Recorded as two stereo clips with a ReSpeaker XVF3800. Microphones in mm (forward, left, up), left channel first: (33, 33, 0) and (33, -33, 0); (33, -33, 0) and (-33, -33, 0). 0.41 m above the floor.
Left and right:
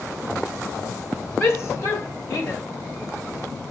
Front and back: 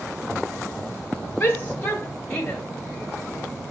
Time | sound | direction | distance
1.4 | a shout | 50° left | 1.8 m